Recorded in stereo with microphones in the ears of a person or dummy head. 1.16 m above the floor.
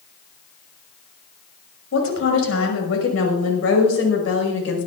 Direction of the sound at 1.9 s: 80° left.